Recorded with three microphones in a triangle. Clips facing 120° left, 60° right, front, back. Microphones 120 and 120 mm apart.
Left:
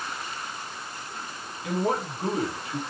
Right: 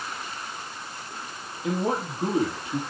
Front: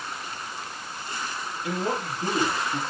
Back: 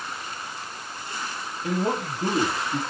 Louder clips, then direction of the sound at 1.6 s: Even, back 3 dB; 125° right.